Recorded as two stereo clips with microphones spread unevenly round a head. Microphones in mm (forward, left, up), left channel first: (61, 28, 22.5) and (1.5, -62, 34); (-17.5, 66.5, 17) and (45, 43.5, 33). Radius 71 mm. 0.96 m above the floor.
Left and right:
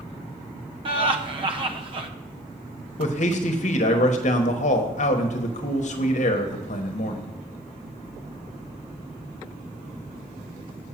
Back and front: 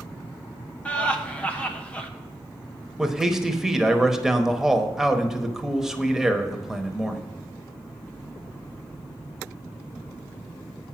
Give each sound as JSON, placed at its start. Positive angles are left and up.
{"t": 0.8, "sound": "laughter", "azimuth_deg": -155, "distance_m": 1.0}
{"t": 3.0, "sound": "a man speaking", "azimuth_deg": 65, "distance_m": 1.0}